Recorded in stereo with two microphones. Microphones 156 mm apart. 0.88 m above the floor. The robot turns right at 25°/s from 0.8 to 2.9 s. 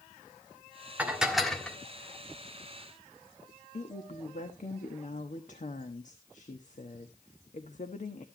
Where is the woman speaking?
55° left (ahead or behind), 1.2 m.